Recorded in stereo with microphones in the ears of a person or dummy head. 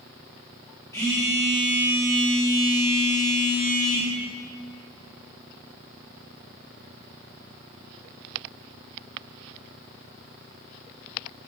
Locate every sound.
0.9 s a phone buzzing: 20° left (ahead or behind), 4 m